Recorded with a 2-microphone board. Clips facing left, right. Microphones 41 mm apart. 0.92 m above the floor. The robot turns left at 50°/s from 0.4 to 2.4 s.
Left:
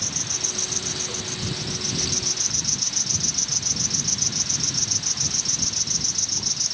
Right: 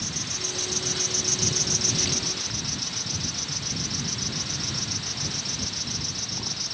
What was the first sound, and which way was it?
An insect, 80° left.